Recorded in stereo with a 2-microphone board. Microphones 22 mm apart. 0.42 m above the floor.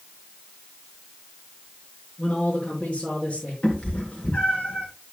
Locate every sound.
2.2 s a man speaking: 65° left (ahead or behind), 5 m; by 3.5 s 60° left (ahead or behind), 5.5 m
3.6 s a cat meowing: 60° left (ahead or behind), 3.5 m